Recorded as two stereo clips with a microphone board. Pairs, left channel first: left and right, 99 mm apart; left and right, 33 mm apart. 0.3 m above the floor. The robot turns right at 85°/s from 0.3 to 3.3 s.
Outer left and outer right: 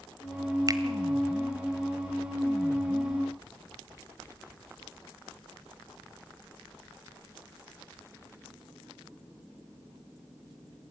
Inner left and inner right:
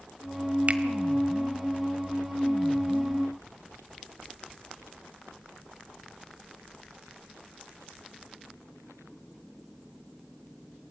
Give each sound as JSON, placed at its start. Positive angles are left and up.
{"t": 0.7, "sound": "a finger snap", "side_deg": -40, "distance_m": 1.4}